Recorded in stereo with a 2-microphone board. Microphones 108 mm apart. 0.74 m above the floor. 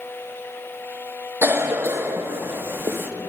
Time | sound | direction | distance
1.4 | a cough | 20° right (ahead or behind) | 0.9 m